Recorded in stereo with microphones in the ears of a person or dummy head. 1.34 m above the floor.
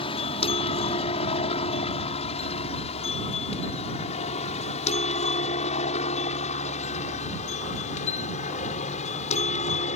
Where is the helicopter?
30° left (ahead or behind); by 10.0 s 40° left (ahead or behind).